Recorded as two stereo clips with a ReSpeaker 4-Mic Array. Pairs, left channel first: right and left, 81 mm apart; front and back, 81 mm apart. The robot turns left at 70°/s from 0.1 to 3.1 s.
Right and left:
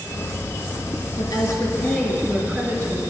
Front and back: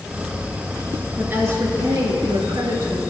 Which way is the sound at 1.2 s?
110° right.